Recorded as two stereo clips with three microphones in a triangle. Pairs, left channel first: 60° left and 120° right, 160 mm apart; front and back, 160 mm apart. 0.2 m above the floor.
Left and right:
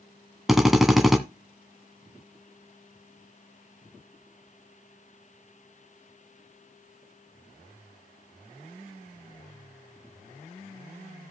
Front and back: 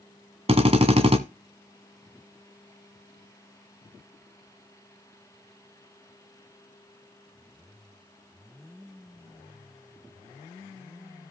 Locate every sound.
0.5 s a drill: 150° left, 1.2 m